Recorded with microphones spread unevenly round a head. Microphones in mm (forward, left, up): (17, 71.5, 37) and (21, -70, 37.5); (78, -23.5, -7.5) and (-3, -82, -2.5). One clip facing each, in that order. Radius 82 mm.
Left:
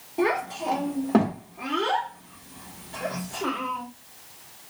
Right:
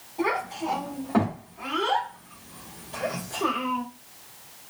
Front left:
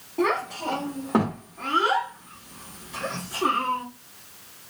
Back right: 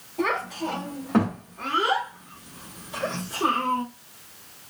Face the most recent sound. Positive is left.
turn(degrees=-145)